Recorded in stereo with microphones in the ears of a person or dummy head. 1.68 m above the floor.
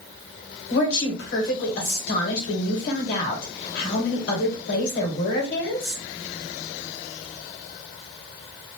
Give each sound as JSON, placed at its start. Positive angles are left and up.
{"t": 0.7, "sound": "a woman speaking", "side_deg": 60, "distance_m": 1.5}